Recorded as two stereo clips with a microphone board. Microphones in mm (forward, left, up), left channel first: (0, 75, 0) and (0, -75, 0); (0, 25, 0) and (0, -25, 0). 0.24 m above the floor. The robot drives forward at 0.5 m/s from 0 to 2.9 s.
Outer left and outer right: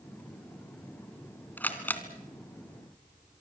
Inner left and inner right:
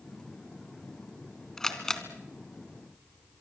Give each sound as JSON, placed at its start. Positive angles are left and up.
{"t": 1.6, "sound": "a camera shutter", "side_deg": 10, "distance_m": 3.0}